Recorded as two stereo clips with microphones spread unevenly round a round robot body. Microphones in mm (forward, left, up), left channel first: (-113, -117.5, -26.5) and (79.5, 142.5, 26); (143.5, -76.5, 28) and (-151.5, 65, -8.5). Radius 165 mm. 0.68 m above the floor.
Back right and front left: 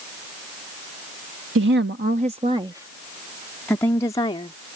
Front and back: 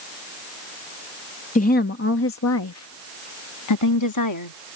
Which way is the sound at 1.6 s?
30° left.